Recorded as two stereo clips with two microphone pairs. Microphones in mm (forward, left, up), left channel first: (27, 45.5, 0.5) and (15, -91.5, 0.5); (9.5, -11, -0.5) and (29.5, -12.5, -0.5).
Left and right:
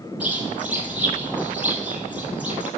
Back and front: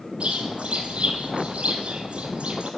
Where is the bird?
15° right, 2.0 m.